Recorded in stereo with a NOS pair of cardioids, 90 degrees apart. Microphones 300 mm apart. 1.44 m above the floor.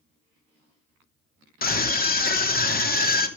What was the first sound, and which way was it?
A scream, 30° left.